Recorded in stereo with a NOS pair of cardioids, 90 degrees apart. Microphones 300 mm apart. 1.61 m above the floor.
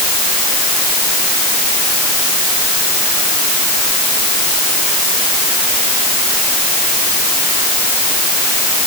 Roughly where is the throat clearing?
I don't hear throat clearing.